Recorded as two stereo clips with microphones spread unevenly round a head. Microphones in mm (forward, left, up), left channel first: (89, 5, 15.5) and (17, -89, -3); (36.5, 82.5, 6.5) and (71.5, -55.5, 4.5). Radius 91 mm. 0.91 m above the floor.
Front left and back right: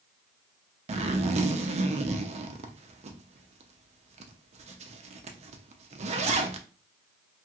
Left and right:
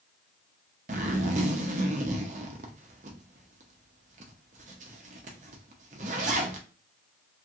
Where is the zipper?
120° right, 0.5 m.